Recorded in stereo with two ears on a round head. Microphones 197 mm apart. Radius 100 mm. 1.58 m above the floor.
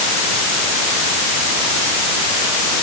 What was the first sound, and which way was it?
Only background noise.